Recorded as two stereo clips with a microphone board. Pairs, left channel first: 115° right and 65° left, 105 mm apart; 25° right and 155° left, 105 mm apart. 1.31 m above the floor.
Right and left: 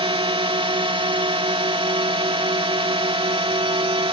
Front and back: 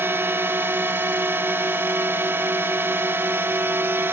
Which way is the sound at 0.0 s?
90° left.